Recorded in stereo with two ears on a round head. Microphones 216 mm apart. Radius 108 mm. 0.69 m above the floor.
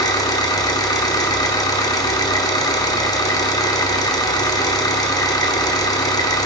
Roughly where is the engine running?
Centre.